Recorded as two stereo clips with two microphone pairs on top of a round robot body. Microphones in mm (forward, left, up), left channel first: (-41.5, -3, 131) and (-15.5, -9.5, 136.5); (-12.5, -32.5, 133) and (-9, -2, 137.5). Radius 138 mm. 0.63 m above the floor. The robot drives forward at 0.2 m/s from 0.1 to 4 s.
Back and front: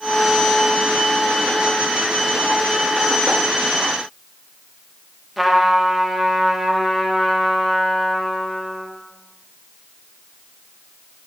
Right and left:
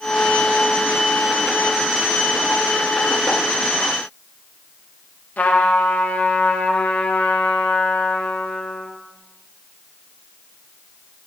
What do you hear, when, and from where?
5.4 s a trumpet: 110° right, 0.8 m